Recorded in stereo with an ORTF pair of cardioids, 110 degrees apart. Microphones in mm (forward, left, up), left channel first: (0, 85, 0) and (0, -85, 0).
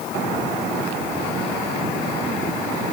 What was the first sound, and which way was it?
Only background noise.